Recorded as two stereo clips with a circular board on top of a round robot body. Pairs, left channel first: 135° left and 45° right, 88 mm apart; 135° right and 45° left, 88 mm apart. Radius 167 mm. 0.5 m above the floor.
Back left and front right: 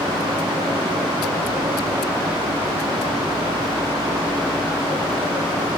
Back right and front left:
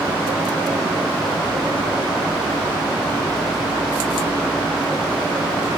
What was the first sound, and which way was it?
Only background noise.